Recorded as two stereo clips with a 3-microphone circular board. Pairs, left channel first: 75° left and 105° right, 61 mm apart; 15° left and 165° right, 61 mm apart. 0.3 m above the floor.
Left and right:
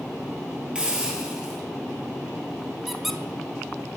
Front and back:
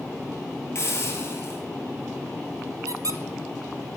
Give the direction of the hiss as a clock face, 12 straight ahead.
1 o'clock.